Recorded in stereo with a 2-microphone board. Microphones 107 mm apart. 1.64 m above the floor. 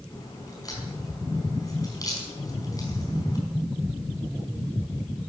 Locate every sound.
0.1 s a crack: 35° left (ahead or behind), 5 m